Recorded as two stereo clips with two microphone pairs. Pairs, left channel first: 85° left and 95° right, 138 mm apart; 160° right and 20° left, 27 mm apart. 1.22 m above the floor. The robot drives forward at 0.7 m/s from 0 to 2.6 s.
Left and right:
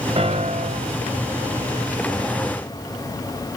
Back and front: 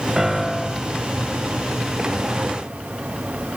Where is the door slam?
No door slam in this recording.